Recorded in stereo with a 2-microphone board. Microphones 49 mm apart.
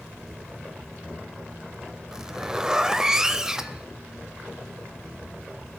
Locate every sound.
2.1 s a zipper: 10° right (ahead or behind), 0.6 m